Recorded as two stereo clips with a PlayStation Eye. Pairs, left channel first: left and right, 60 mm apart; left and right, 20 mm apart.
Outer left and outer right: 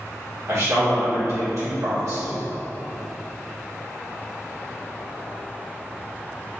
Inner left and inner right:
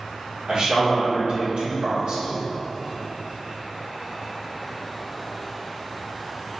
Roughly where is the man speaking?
Right.